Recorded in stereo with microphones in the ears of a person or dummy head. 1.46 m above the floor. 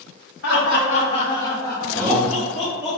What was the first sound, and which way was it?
Laughter, 65° left (ahead or behind).